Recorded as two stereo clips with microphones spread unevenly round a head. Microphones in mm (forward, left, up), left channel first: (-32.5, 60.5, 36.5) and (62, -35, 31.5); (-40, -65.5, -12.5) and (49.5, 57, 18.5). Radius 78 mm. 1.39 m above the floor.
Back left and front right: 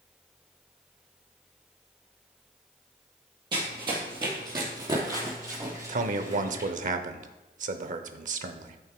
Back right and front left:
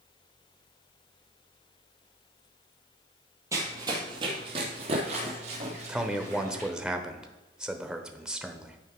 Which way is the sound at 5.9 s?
40° right.